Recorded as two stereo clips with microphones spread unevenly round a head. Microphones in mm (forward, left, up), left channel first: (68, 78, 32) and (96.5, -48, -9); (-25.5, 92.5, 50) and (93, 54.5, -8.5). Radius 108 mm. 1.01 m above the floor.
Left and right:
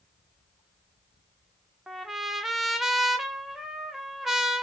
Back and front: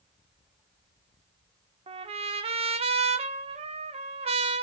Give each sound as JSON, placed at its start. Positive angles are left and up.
{"t": 1.9, "sound": "a trumpet", "azimuth_deg": 35, "distance_m": 0.6}